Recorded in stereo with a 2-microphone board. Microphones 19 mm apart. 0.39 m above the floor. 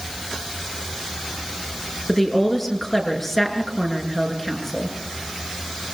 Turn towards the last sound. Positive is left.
turn(degrees=0)  # may be behind; listen again after turning